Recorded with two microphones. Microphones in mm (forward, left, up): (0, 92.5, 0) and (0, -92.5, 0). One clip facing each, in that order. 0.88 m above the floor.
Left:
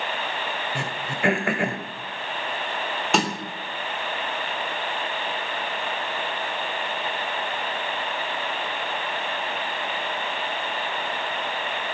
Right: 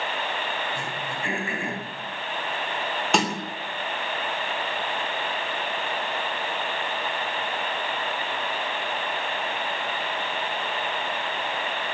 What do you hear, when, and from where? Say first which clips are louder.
0.8 s throat clearing: left 2 dB; 75° left (ahead or behind), 2 m
3.1 s a snare drum: even; centre (ahead or behind), 2.5 m